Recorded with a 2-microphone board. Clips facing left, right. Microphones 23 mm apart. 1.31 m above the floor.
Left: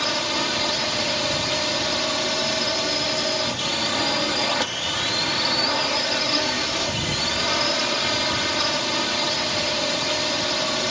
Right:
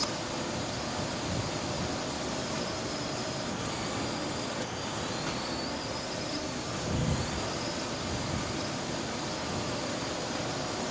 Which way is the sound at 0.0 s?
65° left (ahead or behind).